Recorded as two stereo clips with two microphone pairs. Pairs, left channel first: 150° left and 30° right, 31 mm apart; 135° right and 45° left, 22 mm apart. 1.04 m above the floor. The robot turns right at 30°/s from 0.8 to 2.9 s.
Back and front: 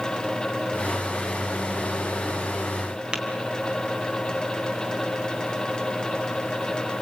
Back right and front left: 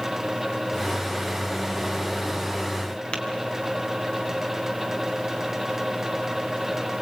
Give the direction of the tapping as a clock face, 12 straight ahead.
3 o'clock.